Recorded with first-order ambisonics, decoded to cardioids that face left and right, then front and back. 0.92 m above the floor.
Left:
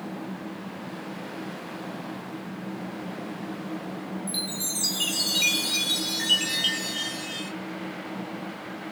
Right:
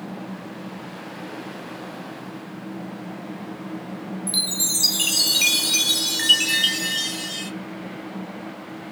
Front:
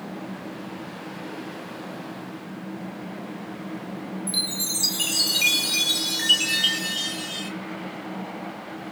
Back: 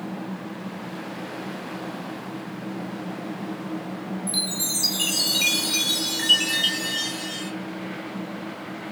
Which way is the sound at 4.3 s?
90° right.